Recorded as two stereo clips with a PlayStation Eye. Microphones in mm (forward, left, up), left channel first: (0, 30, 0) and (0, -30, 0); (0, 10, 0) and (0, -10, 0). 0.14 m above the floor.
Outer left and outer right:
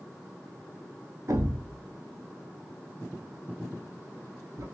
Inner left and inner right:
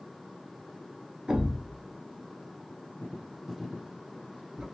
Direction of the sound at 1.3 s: 60° right (ahead or behind).